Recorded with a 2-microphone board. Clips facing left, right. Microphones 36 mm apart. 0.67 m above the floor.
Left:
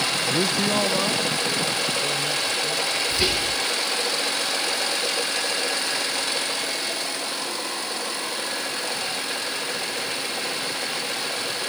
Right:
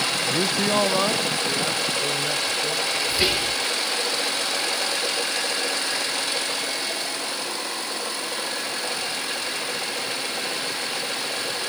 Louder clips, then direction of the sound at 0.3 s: Even; 20° left (ahead or behind).